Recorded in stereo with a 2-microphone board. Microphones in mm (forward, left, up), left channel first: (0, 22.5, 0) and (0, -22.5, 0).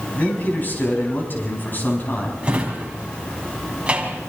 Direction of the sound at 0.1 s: 45° left (ahead or behind).